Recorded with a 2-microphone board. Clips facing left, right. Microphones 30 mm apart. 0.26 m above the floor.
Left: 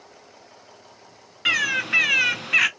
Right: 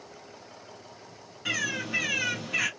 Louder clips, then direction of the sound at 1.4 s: Left 9 dB; 65° left (ahead or behind).